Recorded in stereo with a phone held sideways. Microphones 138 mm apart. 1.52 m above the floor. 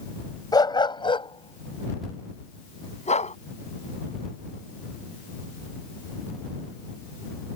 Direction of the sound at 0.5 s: 30° left (ahead or behind).